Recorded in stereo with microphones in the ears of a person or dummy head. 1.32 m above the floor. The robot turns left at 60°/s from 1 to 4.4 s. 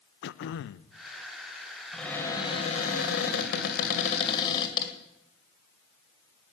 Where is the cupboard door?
175° left, 2 m; by 4.9 s 30° left, 2 m.